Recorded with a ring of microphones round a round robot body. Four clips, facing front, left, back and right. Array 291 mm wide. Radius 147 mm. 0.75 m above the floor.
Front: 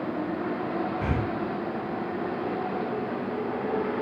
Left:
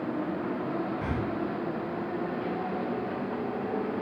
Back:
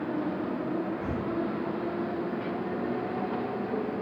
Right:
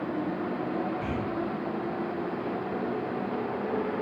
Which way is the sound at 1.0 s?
10° left.